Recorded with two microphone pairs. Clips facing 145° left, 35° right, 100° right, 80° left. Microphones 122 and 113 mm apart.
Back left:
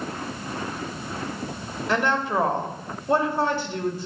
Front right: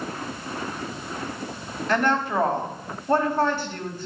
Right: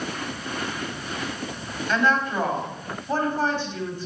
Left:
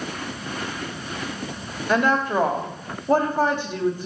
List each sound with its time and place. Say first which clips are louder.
1.9 s a woman speaking: front right 1 dB, left 3 dB; 70° left, 2 m